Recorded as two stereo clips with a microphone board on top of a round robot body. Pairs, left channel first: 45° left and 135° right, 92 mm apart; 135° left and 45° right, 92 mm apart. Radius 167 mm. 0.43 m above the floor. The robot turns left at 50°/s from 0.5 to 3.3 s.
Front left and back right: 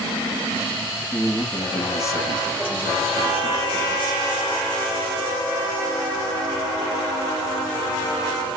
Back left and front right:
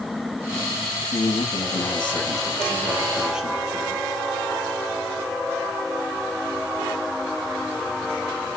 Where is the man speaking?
150° left, 5.5 m; by 4.0 s 40° left, 5.5 m.